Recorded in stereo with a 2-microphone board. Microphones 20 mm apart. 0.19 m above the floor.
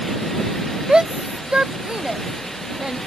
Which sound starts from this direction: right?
A shout, at 0.9 s.